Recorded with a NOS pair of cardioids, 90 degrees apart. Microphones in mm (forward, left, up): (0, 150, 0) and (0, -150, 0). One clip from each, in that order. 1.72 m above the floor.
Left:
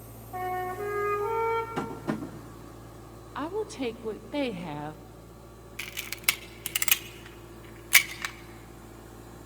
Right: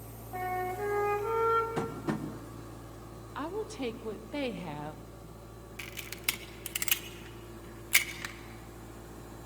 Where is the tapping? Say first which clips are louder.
Left 1 dB; 5° right, 2.5 m.